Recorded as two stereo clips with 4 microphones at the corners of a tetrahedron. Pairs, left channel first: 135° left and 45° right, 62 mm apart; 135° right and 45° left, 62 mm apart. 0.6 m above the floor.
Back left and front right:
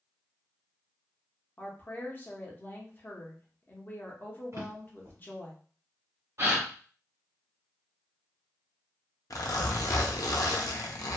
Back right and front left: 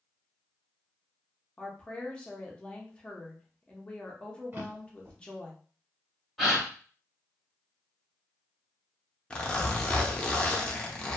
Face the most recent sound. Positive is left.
turn(degrees=150)